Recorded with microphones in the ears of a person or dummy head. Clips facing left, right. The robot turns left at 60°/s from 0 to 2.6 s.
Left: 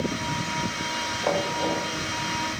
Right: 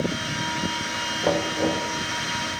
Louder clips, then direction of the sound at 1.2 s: Right 3 dB; 25° right.